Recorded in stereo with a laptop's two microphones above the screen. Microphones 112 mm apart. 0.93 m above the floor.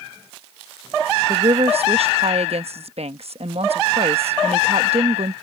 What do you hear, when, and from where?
1.3 s a woman speaking: 65° right (ahead or behind)